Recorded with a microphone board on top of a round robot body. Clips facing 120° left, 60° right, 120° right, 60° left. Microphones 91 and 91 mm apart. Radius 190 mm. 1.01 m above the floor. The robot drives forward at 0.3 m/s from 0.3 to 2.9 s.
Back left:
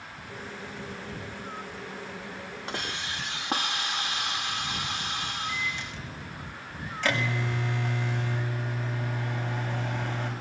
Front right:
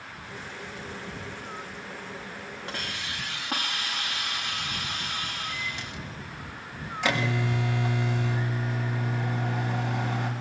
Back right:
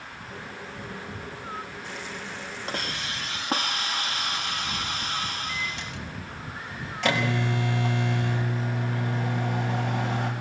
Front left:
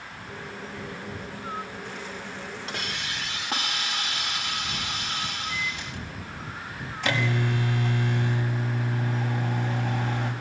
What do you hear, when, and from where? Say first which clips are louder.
2.7 s a hiss: back left 2 dB, back right 3 dB; 175° right, 0.6 m
5.5 s a microwave: back left 2 dB, front left 1 dB; 135° right, 7 m